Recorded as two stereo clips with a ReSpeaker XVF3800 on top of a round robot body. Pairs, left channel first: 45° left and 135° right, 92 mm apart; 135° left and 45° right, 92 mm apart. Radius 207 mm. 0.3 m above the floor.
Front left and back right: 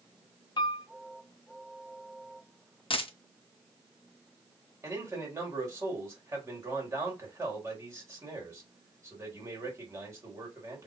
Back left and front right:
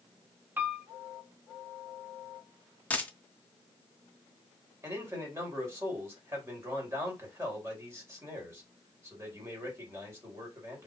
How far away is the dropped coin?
About 0.7 m.